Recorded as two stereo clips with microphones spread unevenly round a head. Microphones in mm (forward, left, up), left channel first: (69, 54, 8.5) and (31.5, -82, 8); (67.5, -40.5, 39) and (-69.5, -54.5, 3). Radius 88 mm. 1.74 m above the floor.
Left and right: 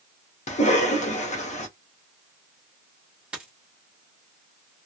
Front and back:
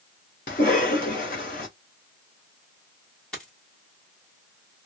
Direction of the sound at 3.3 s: 30° right.